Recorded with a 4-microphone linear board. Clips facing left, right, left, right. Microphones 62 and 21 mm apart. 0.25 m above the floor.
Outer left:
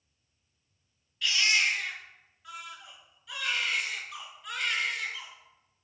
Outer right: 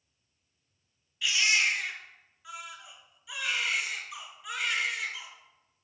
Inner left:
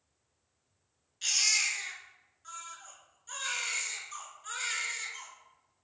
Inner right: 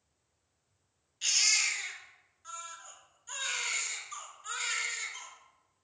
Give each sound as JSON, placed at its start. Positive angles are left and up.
{"t": 1.2, "sound": "a baby crying", "side_deg": -5, "distance_m": 1.4}